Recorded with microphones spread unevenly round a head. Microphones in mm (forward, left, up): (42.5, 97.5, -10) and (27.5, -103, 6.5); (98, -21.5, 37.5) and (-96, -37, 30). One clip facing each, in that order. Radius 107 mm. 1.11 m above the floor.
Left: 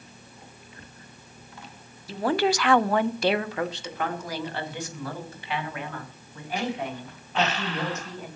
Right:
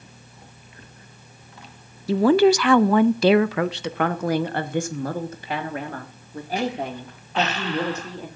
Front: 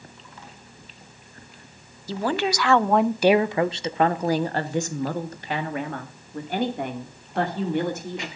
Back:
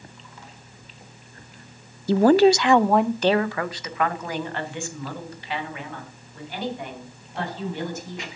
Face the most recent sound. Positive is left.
turn(degrees=-35)